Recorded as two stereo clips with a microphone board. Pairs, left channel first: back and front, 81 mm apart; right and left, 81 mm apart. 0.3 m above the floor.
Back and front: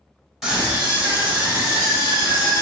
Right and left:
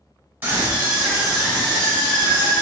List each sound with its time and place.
0.4 s a scream: 80° left, 1.3 m; by 2.6 s 45° right, 1.6 m